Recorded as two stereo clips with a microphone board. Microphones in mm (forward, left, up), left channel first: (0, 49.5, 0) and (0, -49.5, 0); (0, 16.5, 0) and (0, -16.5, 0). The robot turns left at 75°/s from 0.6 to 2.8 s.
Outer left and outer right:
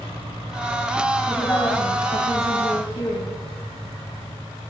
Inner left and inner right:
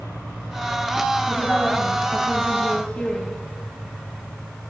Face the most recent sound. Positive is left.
turn(degrees=55)